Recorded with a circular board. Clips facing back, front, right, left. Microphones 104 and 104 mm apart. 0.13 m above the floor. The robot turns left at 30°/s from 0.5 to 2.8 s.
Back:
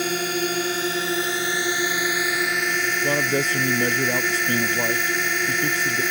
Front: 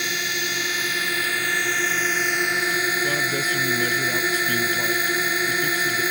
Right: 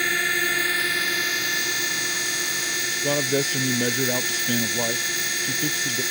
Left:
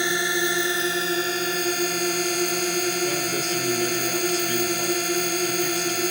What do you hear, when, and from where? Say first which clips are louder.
0.0 s a drone: back 5 dB, left 2 dB; 150° left; by 6.1 s 80° left
3.0 s a man speaking: back 3 dB, right 2 dB; 130° right